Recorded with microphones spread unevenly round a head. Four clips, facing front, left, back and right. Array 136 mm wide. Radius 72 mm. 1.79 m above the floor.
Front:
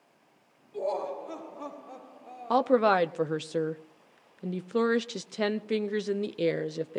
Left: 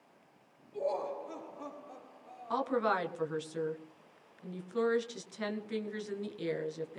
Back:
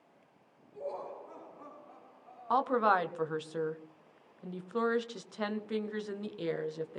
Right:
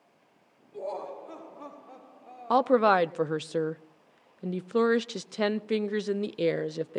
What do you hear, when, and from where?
0.7 s laughter: 10° right, 2.5 m; by 2.8 s 30° right, 1.3 m
2.5 s a woman speaking: 50° right, 0.9 m